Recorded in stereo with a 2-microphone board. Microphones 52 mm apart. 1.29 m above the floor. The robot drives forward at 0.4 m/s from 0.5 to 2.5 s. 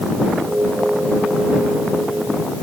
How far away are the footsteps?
I don't hear footsteps.